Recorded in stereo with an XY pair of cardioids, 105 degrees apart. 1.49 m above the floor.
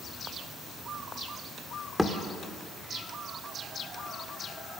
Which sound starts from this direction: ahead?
A thud, at 2.0 s.